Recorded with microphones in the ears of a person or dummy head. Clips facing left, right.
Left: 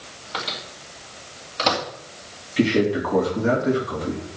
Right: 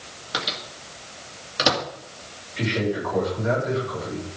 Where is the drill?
I don't hear a drill.